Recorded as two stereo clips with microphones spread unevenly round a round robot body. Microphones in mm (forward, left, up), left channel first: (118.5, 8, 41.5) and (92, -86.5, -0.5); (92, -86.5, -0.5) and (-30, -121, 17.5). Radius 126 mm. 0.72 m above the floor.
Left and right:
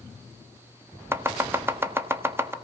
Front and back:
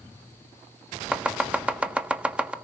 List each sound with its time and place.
1.1 s chopping: 80° right, 1.4 m